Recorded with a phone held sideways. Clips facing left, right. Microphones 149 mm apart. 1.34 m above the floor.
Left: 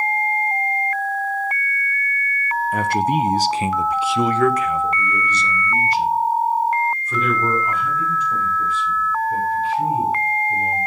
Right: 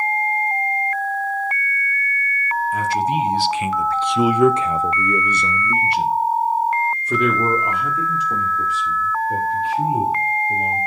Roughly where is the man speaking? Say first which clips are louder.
Left 2 dB; left.